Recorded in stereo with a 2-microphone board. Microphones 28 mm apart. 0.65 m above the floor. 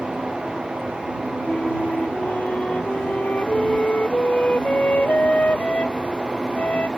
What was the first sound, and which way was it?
A flute, 70° left (ahead or behind).